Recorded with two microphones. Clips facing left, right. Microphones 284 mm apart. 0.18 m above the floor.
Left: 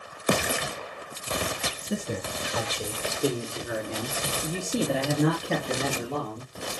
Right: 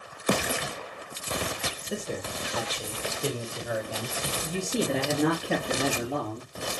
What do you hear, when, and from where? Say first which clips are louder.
1.8 s a man speaking: left 3 dB; 50° left (ahead or behind), 3.5 m; by 6.5 s 15° right (ahead or behind), 3.5 m